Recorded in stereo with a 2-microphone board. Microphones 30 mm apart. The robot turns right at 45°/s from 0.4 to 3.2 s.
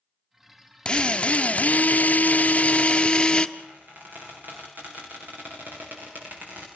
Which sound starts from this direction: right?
A squeak, at 3.6 s.